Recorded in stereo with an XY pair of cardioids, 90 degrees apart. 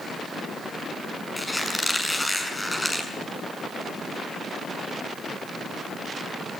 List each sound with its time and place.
1.4 s a squeak: 10° left, 6.5 m